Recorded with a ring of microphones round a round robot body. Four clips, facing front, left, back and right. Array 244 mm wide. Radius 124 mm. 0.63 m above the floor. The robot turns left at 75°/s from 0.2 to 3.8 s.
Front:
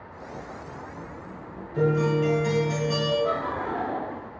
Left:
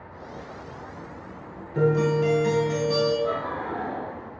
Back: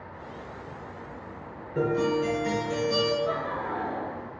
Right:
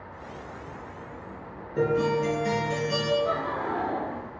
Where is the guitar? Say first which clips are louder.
Left 3 dB, front 2 dB; 105° left, 2 m; by 3.1 s 5° left, 2 m.